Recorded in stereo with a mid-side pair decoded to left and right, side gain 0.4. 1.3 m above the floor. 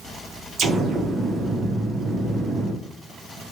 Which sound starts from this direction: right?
An explosion, at 0.6 s.